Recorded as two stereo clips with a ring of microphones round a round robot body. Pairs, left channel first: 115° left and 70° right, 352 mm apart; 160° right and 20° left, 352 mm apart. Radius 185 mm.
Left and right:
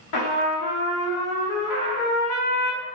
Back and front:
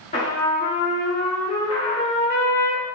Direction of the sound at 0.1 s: 135° left.